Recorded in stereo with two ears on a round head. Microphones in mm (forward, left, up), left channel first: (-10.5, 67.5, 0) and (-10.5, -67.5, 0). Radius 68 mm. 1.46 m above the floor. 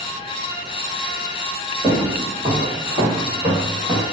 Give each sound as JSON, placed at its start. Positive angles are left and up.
{"t": 1.8, "sound": "footsteps", "side_deg": -10, "distance_m": 1.7}